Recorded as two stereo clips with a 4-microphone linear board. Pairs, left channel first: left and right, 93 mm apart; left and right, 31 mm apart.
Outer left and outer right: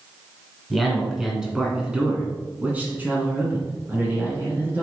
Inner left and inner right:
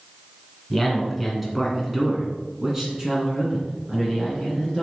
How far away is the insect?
No insect in this recording.